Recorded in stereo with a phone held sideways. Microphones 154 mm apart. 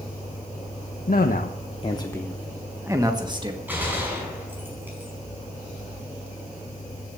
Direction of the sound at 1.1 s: 70° left (ahead or behind).